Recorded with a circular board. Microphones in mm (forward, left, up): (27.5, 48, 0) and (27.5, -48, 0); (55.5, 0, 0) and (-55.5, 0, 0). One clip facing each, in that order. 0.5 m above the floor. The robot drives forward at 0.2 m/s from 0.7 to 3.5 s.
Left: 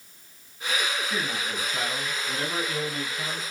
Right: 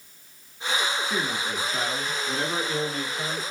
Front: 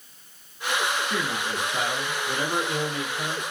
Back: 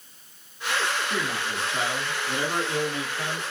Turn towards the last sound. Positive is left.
turn(degrees=-115)